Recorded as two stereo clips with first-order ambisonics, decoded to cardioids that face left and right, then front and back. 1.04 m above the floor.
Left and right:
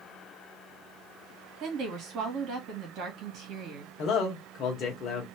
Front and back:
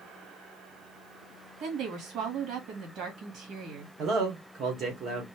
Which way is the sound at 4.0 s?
135° left.